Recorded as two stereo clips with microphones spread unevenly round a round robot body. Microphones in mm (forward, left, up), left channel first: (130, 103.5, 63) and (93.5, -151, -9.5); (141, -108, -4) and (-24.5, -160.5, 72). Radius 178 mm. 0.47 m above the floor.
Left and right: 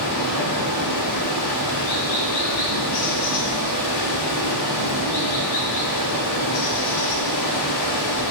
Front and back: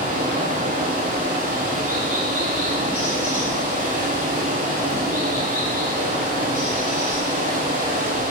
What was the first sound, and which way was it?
Running water, 95° left.